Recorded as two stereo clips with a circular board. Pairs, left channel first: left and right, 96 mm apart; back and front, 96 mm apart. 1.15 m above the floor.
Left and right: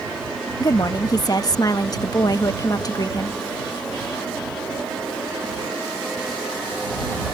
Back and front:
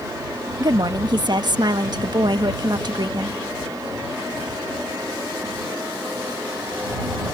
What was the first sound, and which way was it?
A woman speaking, 40° left.